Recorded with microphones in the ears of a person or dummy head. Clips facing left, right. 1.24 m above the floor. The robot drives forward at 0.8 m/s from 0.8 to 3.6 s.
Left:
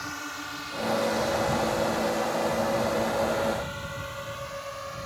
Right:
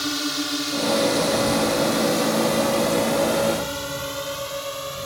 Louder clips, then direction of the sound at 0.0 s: Right 13 dB; 50° right (ahead or behind).